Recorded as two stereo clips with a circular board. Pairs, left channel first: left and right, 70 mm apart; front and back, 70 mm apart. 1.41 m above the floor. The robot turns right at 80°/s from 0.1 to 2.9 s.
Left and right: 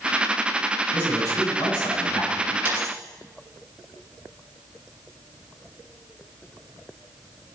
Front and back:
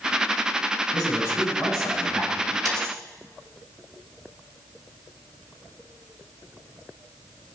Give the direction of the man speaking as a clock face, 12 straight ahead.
11 o'clock.